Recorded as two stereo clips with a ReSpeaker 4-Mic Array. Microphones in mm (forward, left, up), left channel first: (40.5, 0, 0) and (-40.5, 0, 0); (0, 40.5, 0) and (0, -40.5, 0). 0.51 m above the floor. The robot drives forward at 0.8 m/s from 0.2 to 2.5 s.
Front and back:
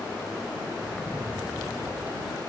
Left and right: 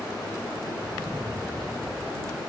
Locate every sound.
0.8 s an explosion: 120° right; by 2.4 s 155° right